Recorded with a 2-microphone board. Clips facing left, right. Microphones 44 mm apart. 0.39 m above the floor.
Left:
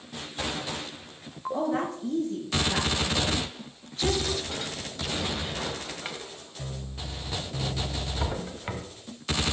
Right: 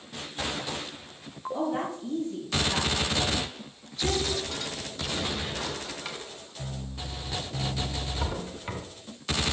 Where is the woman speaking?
55° left (ahead or behind), 5.5 m; by 4.4 s 50° left (ahead or behind), 3.5 m.